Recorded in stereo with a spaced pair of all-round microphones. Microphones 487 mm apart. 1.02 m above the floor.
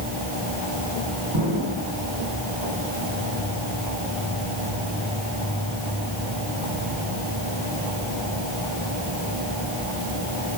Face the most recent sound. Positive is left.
turn(degrees=-55)  # may be behind; listen again after turning